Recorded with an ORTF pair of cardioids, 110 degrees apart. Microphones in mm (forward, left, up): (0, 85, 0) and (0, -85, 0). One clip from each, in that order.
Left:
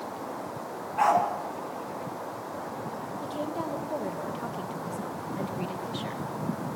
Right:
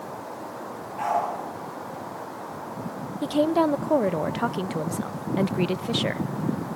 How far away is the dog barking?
About 5.5 m.